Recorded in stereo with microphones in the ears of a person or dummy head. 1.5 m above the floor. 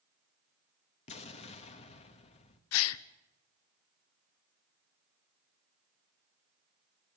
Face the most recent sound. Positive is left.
turn(degrees=75)  # may be behind; listen again after turning